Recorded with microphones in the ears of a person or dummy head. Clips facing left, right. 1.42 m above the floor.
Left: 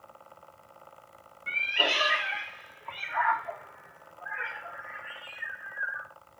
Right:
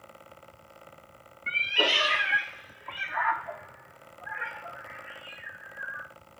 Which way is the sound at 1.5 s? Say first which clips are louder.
Right 2 dB; 45° right (ahead or behind).